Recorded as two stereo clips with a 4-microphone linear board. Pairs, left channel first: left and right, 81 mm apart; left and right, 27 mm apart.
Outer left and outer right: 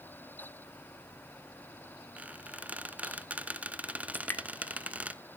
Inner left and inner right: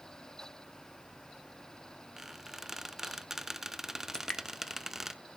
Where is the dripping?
25° left (ahead or behind), 1.0 m.